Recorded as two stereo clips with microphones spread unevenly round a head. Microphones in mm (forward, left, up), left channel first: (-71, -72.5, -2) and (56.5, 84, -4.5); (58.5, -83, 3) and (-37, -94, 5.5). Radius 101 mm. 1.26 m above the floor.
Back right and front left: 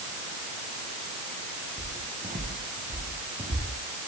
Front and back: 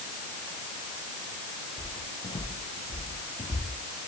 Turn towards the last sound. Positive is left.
turn(degrees=-15)